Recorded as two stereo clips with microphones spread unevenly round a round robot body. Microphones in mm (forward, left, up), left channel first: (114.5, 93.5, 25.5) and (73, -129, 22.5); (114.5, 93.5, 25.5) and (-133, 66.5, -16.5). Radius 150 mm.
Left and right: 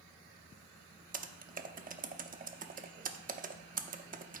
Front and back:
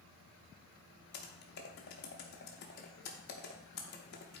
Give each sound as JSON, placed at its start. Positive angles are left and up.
{"t": 1.1, "sound": "typing on a keyboard", "azimuth_deg": -50, "distance_m": 0.6}